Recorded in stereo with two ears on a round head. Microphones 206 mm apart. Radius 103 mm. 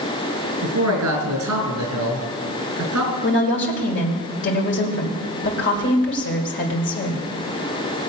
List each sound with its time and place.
0.6 s a man speaking: 70° right (ahead or behind), 5 m
3.2 s a woman speaking: 50° left (ahead or behind), 2.0 m